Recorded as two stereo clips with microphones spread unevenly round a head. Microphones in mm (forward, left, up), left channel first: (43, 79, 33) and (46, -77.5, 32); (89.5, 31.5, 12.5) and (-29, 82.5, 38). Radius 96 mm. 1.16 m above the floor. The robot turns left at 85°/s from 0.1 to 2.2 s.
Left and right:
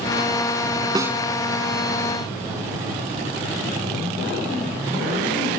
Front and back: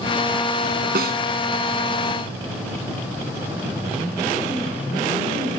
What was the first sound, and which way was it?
A snare drum, 160° right.